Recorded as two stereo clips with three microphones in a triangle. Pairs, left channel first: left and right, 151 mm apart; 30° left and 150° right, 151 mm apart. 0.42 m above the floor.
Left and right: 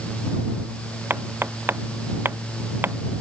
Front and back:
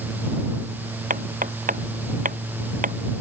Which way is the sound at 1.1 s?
165° right.